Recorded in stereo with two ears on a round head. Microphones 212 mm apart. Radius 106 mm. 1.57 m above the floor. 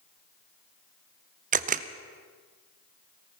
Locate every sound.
1.5 s a camera shutter: 35° right (ahead or behind), 0.6 m